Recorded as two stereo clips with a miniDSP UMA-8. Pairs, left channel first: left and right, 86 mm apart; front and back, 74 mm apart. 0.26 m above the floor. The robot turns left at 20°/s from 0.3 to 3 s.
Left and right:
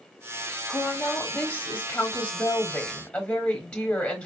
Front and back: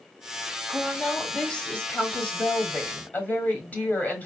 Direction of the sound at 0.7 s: 75° left.